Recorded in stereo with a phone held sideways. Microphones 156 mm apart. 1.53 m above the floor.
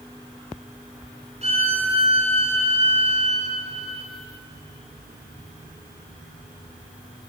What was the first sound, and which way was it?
A violin, 45° right (ahead or behind).